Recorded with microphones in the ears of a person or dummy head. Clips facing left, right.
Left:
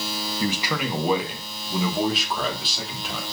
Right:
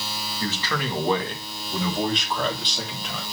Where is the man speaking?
20° left (ahead or behind), 1.8 m; by 3.2 s 5° left (ahead or behind), 3.5 m.